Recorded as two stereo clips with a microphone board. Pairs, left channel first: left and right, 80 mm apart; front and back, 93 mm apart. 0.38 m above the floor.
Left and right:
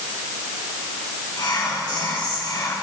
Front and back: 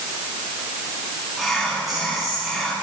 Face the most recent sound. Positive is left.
turn(degrees=90)